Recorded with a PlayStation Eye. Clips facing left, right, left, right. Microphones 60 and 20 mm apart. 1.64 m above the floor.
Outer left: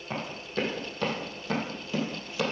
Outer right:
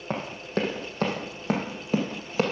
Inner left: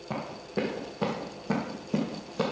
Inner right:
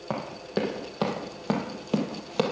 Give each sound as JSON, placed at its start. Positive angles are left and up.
{"t": 0.1, "sound": "running footsteps", "side_deg": -45, "distance_m": 3.0}